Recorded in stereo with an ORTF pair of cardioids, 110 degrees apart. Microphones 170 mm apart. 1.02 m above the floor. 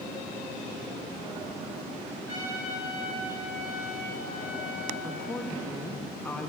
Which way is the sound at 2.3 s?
25° left.